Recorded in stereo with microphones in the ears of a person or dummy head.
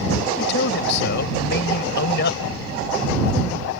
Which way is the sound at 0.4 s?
60° left (ahead or behind).